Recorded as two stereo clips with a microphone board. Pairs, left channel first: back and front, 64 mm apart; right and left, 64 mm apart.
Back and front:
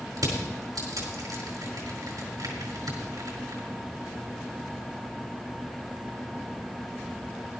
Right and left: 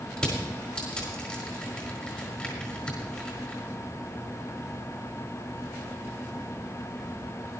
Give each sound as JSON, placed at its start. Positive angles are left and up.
{"t": 0.2, "sound": "crushing", "azimuth_deg": -20, "distance_m": 5.0}